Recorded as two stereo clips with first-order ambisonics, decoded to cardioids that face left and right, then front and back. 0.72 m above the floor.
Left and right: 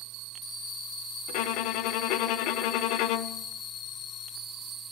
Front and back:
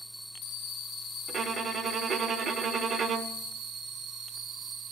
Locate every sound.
1.3 s a violin: 115° left, 1.1 m